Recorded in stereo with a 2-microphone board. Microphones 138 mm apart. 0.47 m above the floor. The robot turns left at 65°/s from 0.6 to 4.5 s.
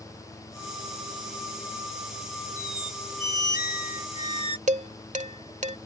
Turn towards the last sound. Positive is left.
turn(degrees=-60)  # may be behind; listen again after turning